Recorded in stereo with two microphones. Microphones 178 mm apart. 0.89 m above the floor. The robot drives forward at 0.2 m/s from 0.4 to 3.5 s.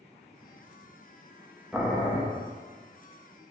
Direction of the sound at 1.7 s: Centre (ahead or behind).